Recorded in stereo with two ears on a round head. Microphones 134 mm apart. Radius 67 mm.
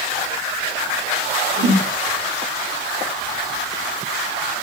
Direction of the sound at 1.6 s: 40° right (ahead or behind).